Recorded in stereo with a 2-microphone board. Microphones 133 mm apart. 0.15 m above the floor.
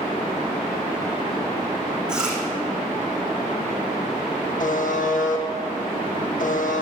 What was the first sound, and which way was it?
Chewing, 5° right (ahead or behind).